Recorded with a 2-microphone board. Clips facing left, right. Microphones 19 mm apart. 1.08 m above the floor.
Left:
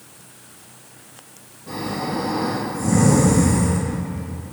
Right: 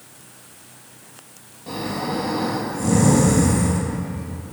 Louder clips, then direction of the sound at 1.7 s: Even; 55° right (ahead or behind).